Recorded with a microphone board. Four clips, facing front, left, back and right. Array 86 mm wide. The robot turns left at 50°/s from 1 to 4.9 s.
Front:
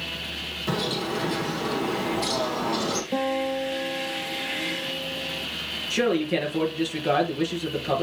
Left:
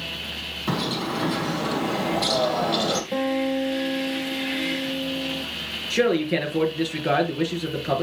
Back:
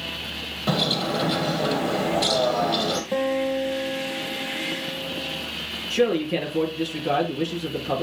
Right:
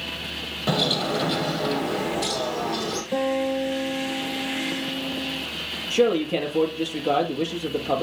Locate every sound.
0.7 s a bird: 130° right, 2.5 m; by 3.0 s 130° left, 2.5 m
3.1 s a guitar: 170° left, 3.5 m; by 5.4 s 80° left, 3.5 m
5.9 s a man speaking: 75° left, 3.5 m